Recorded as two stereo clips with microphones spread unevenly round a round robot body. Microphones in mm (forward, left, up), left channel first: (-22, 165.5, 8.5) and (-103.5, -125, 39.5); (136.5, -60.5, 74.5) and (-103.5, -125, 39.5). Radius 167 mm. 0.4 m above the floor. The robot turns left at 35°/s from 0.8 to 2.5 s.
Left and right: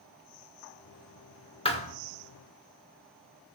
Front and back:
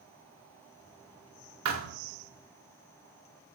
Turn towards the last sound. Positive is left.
turn(degrees=120)